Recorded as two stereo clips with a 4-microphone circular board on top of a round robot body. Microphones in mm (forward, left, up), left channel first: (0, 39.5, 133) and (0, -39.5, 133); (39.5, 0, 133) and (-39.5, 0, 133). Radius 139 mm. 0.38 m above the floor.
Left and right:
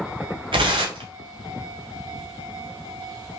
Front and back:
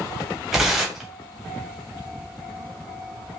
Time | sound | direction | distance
0.5 | tearing paper | 95° right | 1.0 m